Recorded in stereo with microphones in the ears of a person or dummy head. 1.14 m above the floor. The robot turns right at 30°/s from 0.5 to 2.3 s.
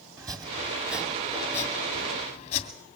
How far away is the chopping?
About 2.5 m.